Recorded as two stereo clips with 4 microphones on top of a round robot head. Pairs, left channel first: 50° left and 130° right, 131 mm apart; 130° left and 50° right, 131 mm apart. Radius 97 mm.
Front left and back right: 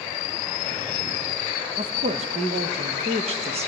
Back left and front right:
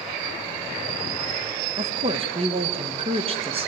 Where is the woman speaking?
90° right, 1.9 m.